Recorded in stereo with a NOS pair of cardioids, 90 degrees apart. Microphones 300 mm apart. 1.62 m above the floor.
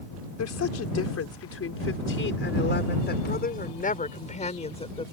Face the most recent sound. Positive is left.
turn(degrees=15)